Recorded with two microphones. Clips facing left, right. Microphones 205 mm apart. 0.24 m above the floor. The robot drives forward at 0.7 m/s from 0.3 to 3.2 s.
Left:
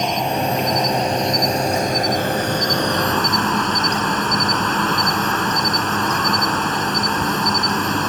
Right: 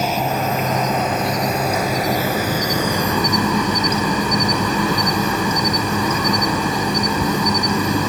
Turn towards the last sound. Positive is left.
turn(degrees=-10)  # may be behind; listen again after turning